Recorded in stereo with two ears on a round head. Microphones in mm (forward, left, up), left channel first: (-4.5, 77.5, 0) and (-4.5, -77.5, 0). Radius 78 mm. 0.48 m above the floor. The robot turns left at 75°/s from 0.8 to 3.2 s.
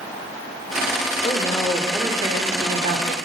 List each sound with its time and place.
1.2 s a woman speaking: 40° left, 1.3 m; by 3.1 s 100° right, 1.3 m